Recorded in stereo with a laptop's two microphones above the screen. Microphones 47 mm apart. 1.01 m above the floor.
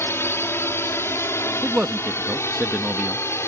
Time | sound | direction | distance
0.0 | a drone | 60° left (ahead or behind) | ?
1.6 | a man speaking | 35° right (ahead or behind) | ?